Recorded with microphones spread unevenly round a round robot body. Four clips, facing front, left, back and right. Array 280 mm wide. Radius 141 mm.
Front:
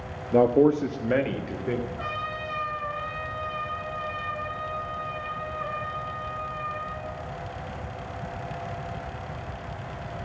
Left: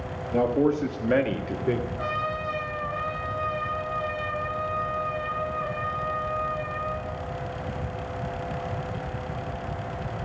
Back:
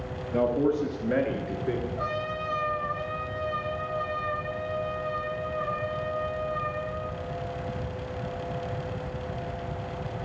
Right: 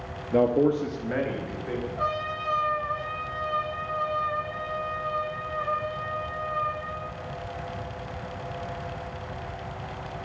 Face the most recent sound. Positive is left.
turn(degrees=-175)